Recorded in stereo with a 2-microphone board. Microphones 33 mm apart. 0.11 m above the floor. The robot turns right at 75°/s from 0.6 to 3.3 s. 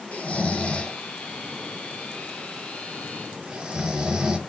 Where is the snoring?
50° left (ahead or behind), 0.8 m; by 4.4 s 35° right (ahead or behind), 0.8 m.